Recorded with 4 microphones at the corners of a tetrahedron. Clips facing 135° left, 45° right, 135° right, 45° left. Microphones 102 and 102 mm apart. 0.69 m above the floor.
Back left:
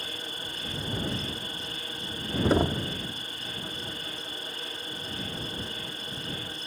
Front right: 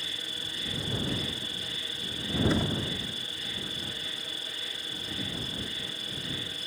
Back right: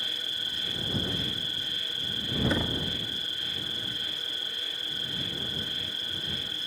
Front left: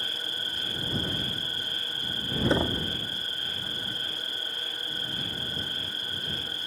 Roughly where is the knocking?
Left.